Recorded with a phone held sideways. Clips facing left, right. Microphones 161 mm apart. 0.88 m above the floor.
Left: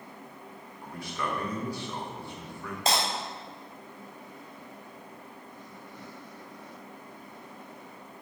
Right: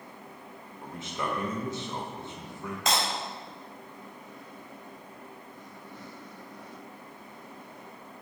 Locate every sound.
0.8 s a man speaking: 20° right (ahead or behind), 1.0 m
2.9 s breaking glass: 35° left (ahead or behind), 2.5 m